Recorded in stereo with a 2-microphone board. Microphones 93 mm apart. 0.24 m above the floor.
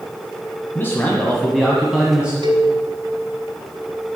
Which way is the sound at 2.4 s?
55° right (ahead or behind).